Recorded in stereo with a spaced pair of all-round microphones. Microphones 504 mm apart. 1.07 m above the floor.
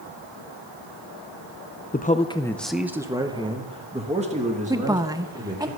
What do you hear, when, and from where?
1.9 s a man speaking: 20° left (ahead or behind), 0.5 m; by 5.7 s 15° right (ahead or behind), 2.5 m
4.7 s a woman speaking: 10° right (ahead or behind), 0.7 m